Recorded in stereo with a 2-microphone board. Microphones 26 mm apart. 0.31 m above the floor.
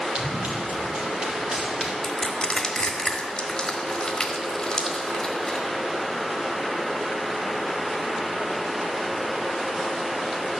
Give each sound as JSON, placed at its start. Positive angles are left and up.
{"t": 0.1, "sound": "running footsteps", "side_deg": -55, "distance_m": 3.5}
{"t": 2.0, "sound": "crushing", "side_deg": 25, "distance_m": 1.4}